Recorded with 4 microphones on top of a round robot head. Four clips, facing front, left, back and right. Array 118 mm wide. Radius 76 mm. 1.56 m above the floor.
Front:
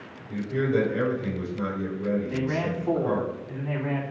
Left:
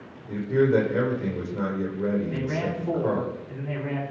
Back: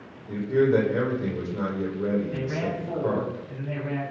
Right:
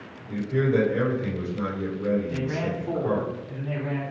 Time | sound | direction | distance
0.3 | a man speaking | 130° left | 1.6 m
2.3 | a man speaking | 25° left | 3 m